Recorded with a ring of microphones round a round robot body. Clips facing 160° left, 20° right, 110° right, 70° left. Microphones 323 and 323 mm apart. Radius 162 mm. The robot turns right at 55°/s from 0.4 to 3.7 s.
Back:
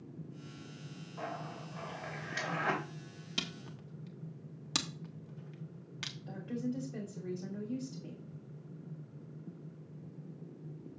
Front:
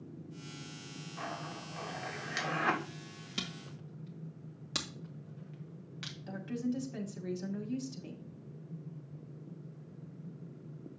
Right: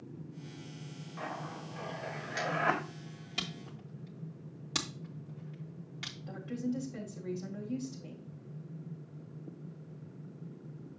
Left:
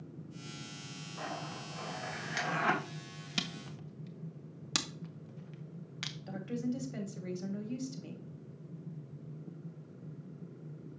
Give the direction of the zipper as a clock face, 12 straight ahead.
2 o'clock.